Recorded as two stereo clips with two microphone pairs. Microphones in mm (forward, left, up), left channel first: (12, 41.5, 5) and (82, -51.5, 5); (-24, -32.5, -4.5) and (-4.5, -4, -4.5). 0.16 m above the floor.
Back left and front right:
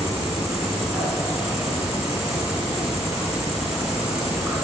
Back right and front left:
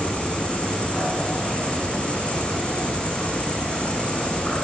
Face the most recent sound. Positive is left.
turn(degrees=-100)